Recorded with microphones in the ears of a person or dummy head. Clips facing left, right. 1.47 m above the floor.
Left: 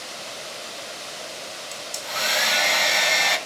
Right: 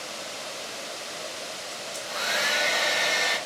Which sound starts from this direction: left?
A hair dryer, at 1.7 s.